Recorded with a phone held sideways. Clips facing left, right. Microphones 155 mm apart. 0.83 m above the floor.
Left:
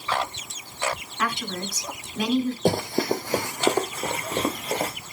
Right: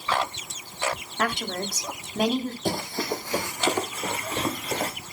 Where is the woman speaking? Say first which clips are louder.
Right 2 dB; 50° right (ahead or behind), 1.5 m.